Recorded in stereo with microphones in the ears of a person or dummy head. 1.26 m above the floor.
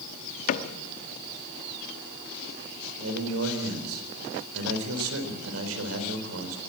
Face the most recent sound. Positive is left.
turn(degrees=-80)